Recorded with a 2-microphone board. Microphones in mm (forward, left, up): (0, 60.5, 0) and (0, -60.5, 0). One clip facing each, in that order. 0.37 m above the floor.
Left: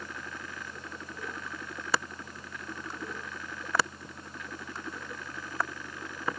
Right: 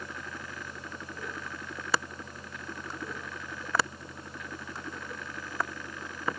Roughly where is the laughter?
No laughter in this recording.